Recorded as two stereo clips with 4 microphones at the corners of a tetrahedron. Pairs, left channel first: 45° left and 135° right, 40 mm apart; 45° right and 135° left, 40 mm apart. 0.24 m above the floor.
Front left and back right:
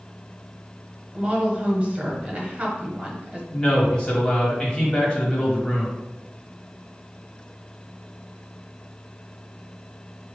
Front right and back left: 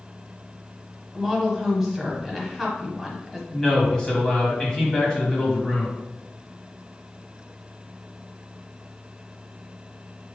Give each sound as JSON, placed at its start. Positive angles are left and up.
{"t": 1.1, "sound": "a woman speaking", "azimuth_deg": -145, "distance_m": 1.1}
{"t": 3.5, "sound": "a man speaking", "azimuth_deg": 10, "distance_m": 1.4}